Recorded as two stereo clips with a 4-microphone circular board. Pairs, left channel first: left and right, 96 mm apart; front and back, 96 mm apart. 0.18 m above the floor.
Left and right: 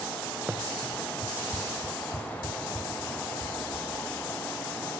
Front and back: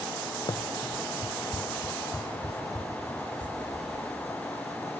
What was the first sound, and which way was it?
Running footsteps, 20° right.